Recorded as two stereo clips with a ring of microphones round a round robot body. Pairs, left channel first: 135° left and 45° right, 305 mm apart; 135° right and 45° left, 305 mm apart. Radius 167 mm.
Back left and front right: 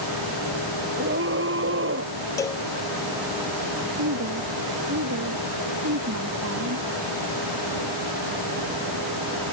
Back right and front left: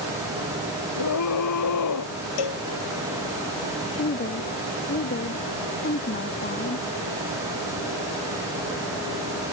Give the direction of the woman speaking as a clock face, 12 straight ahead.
3 o'clock.